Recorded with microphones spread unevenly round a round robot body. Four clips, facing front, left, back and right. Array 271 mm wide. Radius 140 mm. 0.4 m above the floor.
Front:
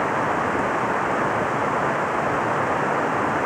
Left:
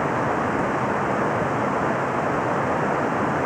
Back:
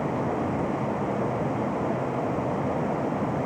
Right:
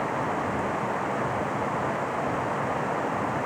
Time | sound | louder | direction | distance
0.0 | running water | left 5 dB, front 5 dB | 30° left | ?